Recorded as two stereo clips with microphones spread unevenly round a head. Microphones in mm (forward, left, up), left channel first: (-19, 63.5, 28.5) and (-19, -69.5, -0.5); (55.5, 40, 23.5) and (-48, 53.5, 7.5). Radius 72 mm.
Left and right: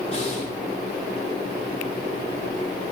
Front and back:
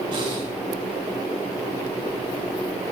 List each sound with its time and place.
0.1 s breathing: 130° left, 7.5 m